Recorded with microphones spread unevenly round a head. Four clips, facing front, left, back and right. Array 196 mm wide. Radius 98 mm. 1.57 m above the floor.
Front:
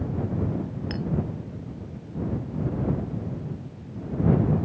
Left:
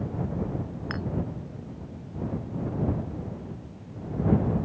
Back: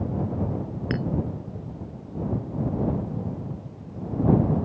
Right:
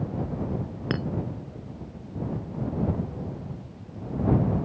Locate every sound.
0.9 s a clink: 125° right